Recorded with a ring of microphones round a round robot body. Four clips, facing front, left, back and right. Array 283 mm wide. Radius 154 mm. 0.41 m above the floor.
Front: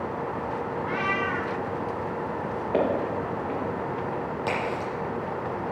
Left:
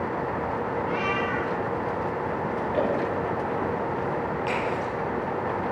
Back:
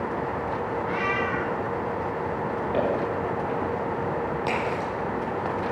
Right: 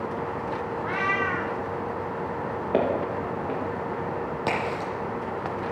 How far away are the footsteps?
About 7.5 m.